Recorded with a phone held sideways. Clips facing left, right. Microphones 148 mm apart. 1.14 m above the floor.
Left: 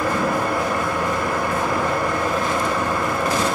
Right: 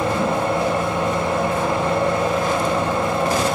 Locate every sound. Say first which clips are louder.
0.0 s a fan: right 1 dB; 25° right (ahead or behind), 1.6 m